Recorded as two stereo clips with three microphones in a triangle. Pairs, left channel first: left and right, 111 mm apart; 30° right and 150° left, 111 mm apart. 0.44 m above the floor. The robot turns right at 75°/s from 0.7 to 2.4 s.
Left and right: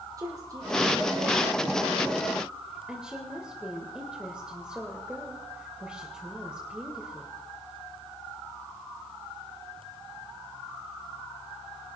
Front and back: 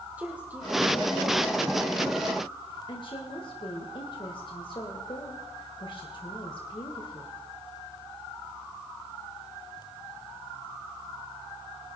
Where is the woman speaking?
135° right, 1.9 m; by 7.3 s 10° right, 1.9 m.